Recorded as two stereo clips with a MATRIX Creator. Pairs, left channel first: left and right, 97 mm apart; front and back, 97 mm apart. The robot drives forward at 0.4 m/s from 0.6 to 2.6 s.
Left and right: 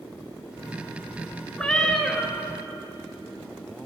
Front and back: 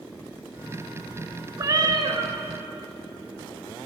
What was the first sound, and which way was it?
A cat meowing, 165° left.